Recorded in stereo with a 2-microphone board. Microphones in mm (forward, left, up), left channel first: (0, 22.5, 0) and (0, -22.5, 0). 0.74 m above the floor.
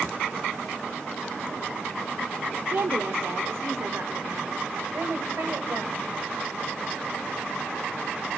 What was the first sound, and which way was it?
A woman speaking, 60° right (ahead or behind).